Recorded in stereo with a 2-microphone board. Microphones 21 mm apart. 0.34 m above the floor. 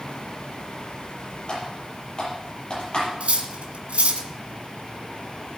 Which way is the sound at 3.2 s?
70° right (ahead or behind).